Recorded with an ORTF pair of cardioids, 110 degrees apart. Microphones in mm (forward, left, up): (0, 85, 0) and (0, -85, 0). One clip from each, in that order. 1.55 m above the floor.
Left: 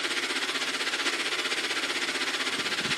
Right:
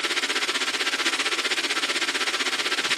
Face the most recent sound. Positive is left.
turn(degrees=-35)